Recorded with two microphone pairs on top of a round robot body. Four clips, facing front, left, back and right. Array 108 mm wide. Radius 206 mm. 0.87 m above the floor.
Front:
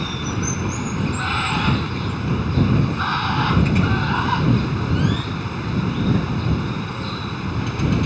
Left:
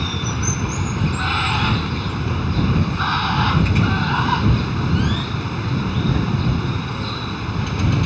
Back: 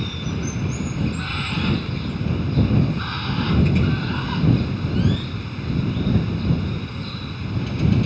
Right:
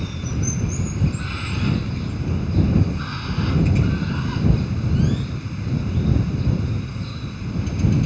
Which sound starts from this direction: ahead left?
Running water, at 0.0 s.